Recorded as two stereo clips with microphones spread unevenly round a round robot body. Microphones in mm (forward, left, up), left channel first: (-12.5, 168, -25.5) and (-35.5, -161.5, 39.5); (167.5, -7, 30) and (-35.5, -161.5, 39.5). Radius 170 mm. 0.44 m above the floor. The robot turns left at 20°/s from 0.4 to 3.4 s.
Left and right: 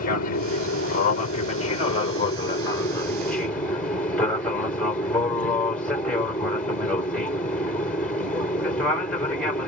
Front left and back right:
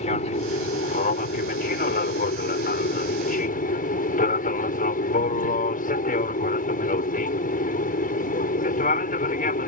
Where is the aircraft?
80° left; by 9.7 s 20° left.